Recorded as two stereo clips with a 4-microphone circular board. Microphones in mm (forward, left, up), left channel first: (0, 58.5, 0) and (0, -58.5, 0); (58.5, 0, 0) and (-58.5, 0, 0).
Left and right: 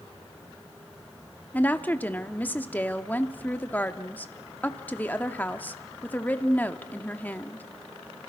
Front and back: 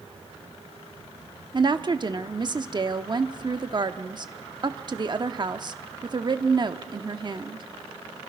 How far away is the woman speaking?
About 0.8 m.